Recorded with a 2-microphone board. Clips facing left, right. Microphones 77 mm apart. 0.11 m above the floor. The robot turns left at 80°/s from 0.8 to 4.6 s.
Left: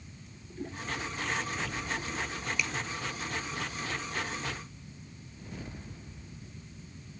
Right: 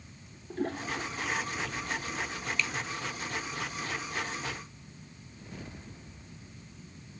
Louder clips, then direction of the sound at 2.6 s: Right 1 dB; 10° left (ahead or behind).